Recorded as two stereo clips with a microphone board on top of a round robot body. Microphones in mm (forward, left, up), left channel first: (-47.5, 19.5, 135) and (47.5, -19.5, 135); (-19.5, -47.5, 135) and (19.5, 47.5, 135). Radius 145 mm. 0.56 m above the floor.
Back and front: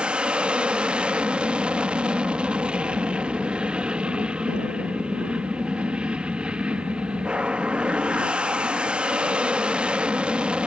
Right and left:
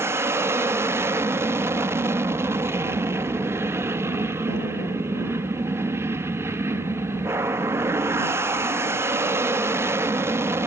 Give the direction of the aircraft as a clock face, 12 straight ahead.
10 o'clock.